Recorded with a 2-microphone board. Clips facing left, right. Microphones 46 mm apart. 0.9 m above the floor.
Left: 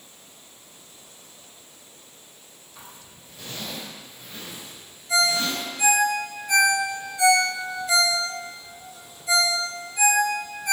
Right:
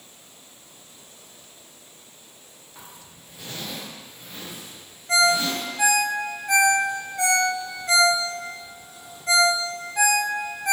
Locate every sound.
2.8 s a zipper: 20° right (ahead or behind), 1.6 m
5.1 s a ringtone: 60° right (ahead or behind), 1.4 m